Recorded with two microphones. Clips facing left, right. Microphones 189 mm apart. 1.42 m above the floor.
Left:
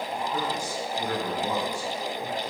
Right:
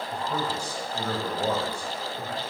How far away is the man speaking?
About 6.5 m.